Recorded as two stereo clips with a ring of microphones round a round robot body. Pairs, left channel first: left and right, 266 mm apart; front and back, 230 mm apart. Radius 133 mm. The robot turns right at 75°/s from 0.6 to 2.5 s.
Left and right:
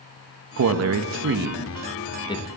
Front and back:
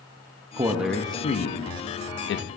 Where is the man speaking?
110° right, 0.6 m; by 2.5 s 30° left, 0.6 m.